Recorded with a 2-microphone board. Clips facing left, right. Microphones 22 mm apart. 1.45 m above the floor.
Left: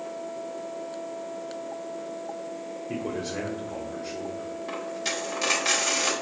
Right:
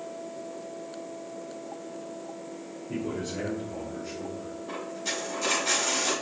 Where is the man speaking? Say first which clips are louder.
Even; 80° left, 1.1 m.